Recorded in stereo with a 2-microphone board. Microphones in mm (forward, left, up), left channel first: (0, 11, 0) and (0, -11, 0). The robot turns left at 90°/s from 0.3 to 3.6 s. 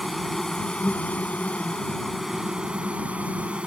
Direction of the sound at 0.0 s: 170° left.